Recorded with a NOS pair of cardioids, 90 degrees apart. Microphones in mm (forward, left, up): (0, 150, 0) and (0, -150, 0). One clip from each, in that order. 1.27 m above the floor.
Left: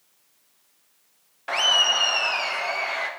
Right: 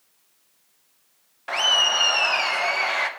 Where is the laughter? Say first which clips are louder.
Even; 5° left, 0.9 m; by 3.1 s 40° right, 1.3 m.